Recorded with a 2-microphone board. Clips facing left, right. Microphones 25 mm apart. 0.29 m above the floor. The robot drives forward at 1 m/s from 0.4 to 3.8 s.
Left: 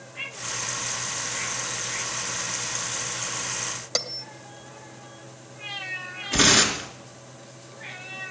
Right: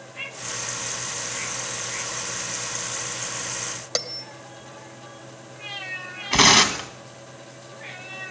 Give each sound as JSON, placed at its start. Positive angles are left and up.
{"t": 4.0, "sound": "a bell", "side_deg": -10, "distance_m": 0.9}
{"t": 6.3, "sound": "tearing paper", "side_deg": -60, "distance_m": 2.0}